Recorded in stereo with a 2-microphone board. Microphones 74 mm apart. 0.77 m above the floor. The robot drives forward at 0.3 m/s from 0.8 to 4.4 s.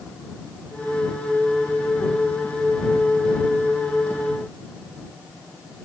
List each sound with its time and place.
Only background noise.